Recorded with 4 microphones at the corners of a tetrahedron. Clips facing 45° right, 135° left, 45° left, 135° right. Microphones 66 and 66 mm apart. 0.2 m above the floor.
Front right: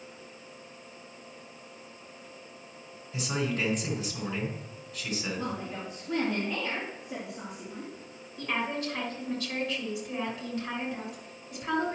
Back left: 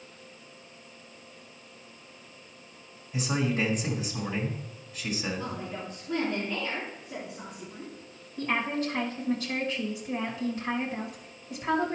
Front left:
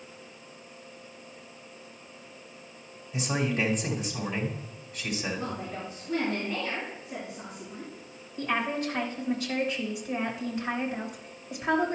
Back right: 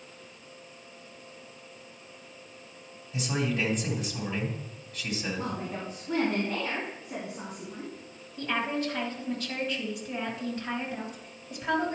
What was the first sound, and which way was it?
A man speaking, 115° left.